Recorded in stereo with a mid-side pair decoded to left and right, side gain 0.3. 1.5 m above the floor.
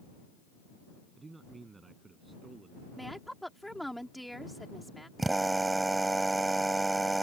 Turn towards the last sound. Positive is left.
turn(degrees=-30)